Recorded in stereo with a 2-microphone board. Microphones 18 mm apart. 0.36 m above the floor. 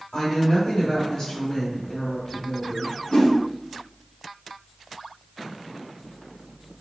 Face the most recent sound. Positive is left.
turn(degrees=80)